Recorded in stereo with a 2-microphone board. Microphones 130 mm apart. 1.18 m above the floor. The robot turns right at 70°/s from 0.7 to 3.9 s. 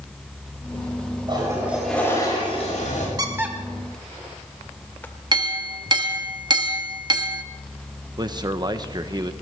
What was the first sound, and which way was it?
A toilet flushing, 40° right.